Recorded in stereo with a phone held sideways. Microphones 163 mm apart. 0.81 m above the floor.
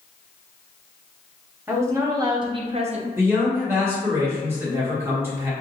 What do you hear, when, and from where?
1.7 s a woman speaking: 15° right (ahead or behind), 1.1 m; by 3.1 s 45° right (ahead or behind), 0.6 m
3.2 s a man speaking: 15° right (ahead or behind), 1.4 m